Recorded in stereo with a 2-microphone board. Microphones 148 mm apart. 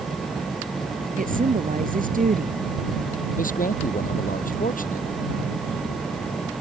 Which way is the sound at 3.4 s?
65° left (ahead or behind).